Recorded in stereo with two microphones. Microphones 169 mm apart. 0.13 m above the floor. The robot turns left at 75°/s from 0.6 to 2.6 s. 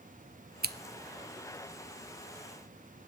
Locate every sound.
0.6 s scissors: 65° right (ahead or behind), 0.5 m; by 0.8 s 70° right (ahead or behind), 0.5 m